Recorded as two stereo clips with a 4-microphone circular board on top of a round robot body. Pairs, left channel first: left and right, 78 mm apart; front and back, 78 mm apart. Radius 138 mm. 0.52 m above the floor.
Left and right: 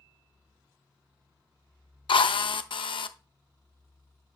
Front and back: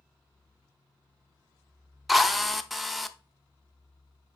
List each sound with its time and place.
2.1 s a drill: 90° left, 0.7 m